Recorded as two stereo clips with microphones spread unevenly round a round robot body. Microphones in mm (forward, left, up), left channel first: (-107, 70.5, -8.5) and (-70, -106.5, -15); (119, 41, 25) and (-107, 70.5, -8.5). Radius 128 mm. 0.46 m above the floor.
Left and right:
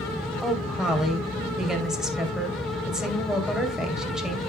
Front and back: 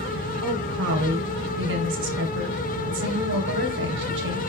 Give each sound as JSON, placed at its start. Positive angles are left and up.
{"t": 0.4, "sound": "a woman speaking", "azimuth_deg": -165, "distance_m": 2.5}